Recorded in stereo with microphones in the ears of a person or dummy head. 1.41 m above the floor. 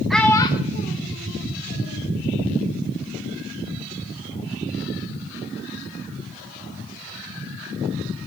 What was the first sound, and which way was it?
A child speaking, centre (ahead or behind).